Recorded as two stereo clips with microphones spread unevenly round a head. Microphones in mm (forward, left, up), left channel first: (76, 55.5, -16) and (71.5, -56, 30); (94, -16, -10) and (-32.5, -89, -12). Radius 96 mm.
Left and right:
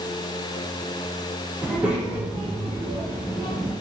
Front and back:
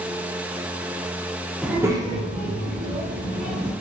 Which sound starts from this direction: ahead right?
A child speaking, at 1.6 s.